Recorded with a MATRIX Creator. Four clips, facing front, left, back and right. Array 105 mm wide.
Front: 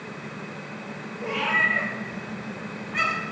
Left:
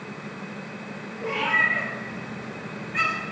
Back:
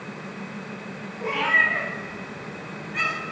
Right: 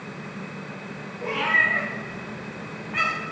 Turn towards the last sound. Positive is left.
turn(degrees=-70)